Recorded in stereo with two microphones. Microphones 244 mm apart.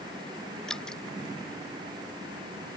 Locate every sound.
0.7 s dripping: 5° left (ahead or behind)